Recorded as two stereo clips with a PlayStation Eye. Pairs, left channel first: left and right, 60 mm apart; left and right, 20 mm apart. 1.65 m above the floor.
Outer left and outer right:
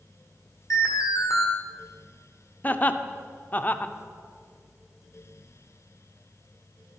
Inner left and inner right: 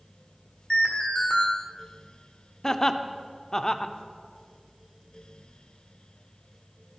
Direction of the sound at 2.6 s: 30° left (ahead or behind).